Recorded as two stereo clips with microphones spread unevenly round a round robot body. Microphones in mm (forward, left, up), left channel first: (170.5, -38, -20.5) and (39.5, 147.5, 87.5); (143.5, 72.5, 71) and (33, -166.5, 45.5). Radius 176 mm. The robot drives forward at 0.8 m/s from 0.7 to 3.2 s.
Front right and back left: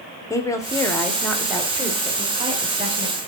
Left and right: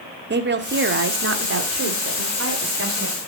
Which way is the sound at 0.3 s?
95° right.